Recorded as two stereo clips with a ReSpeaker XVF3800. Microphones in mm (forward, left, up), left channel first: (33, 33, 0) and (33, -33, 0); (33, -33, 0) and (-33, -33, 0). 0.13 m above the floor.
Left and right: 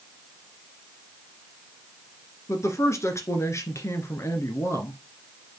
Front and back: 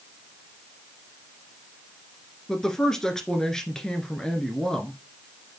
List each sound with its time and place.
2.5 s a woman speaking: 80° left, 1.5 m